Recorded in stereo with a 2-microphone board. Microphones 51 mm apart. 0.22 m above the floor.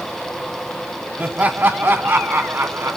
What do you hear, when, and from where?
1.2 s laughter: 30° right (ahead or behind), 1.6 m; by 3.0 s 60° right (ahead or behind), 2.5 m